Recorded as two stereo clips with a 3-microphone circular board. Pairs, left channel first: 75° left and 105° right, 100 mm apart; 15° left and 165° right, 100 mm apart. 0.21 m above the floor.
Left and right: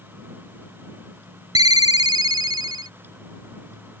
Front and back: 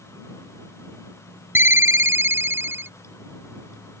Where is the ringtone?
110° right.